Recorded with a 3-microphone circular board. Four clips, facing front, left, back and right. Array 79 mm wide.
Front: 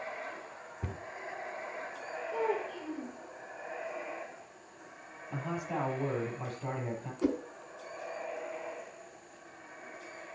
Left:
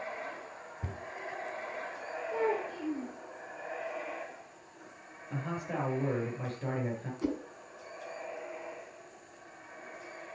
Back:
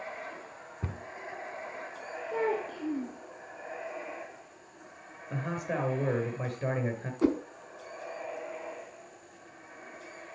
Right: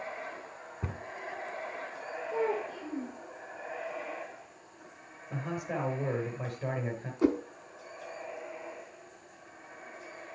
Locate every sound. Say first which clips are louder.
0.8 s a cupboard door: right 3 dB, back 2 dB; 120° right, 0.9 m
2.3 s a child speaking: even, back 2 dB; 155° left, 2.5 m
5.3 s a man speaking: right 1 dB, back 2 dB; 175° right, 5 m
7.2 s a whoosh: right 8 dB, back 4 dB; 130° right, 0.8 m